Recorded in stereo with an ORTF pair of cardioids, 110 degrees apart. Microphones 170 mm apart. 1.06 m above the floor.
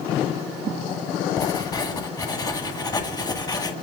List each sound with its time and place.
1.4 s writing: 25° left, 2.0 m